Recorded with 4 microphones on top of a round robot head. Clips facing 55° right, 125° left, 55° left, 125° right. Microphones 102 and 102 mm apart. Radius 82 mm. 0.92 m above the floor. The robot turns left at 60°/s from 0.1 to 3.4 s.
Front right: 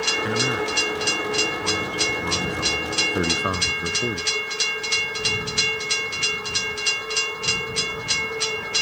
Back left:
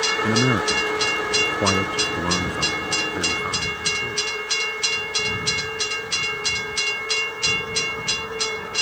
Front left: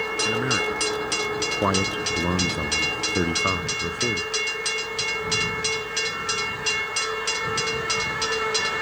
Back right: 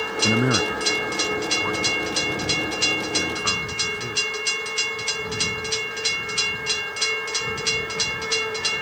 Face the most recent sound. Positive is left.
turn(degrees=-5)